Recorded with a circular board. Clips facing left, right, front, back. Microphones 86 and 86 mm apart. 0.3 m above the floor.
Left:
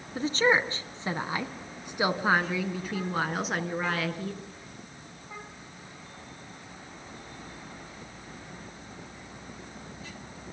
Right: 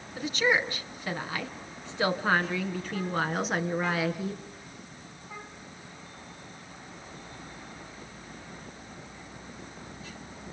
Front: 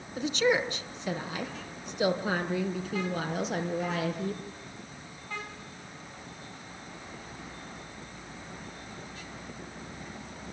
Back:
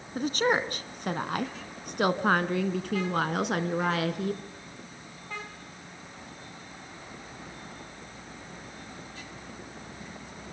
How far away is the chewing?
No chewing in this recording.